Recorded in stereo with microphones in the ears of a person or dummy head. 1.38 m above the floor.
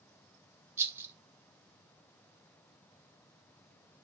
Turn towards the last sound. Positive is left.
turn(degrees=-15)  # may be behind; listen again after turning